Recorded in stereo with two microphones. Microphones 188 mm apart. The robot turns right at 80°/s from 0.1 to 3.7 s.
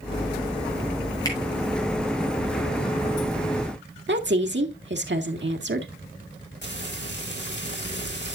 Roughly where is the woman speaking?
Right.